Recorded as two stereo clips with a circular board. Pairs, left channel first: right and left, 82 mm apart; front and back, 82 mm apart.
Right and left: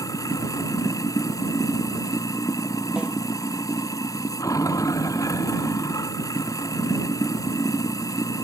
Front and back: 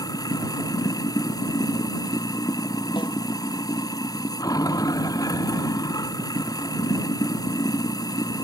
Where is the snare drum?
15° left.